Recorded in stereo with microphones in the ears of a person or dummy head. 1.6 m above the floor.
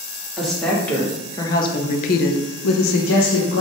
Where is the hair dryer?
I don't hear a hair dryer.